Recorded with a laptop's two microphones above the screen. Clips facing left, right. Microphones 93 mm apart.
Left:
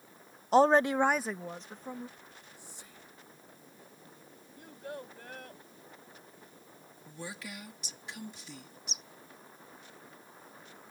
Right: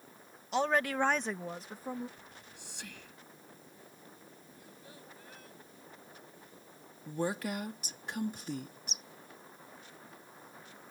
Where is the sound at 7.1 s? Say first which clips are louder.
Right 10 dB; 50° right (ahead or behind).